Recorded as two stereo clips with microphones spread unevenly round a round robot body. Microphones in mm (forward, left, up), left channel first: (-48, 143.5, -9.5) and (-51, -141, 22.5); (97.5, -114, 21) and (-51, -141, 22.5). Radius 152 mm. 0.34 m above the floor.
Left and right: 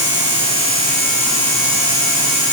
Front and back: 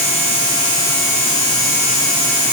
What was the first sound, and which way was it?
Only background noise.